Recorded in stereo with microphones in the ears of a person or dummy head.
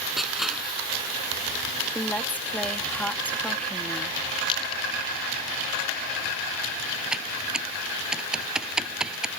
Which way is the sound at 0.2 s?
Centre (ahead or behind).